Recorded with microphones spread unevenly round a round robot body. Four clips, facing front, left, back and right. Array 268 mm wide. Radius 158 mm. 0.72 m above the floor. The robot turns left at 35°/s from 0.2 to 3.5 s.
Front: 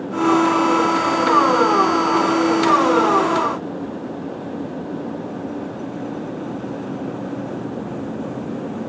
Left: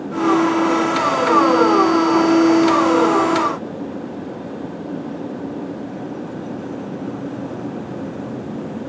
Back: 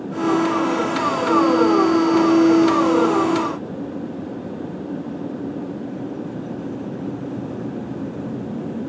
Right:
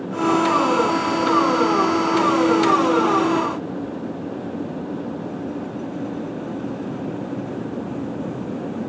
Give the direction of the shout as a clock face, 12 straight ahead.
No shout in this recording.